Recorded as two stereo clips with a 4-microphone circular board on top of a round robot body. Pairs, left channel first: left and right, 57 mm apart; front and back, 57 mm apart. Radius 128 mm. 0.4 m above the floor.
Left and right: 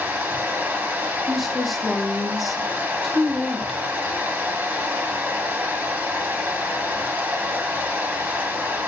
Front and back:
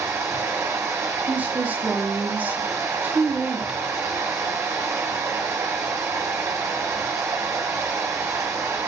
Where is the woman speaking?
Straight behind, 0.8 m.